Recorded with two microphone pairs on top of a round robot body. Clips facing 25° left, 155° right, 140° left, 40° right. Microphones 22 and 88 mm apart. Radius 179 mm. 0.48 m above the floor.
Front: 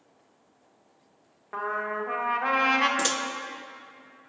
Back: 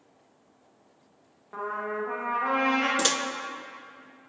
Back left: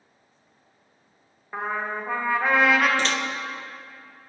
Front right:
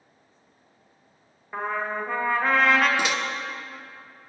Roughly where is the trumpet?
Ahead left.